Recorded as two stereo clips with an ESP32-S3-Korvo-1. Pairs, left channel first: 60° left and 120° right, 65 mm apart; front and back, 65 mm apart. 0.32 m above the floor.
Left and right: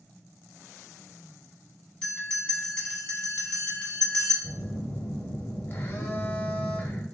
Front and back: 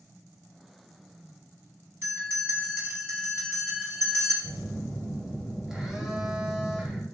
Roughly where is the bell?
Behind left.